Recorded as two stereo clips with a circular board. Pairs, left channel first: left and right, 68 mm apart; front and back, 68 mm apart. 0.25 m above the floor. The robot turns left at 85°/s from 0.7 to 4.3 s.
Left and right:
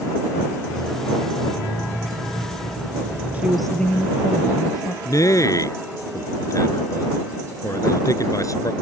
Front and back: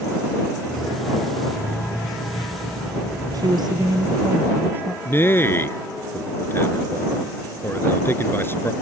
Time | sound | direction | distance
3.3 | a woman speaking | 155° right | ?
5.0 | a man speaking | 55° left | ?